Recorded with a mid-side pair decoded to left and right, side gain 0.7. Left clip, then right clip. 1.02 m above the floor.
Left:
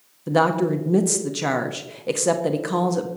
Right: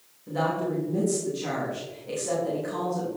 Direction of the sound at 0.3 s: 55° left.